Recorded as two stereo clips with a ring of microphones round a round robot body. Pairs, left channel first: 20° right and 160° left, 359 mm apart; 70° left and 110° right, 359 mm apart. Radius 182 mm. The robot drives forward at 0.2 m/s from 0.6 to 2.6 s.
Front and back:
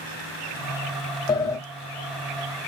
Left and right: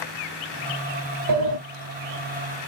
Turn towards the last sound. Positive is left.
turn(degrees=-115)